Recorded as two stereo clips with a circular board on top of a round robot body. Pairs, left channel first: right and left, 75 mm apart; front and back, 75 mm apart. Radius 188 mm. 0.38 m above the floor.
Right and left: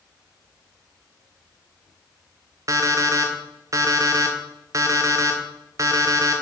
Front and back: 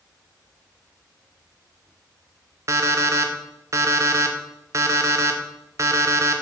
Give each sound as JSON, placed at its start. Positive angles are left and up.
{"t": 2.7, "sound": "an alarm clock", "azimuth_deg": 135, "distance_m": 0.6}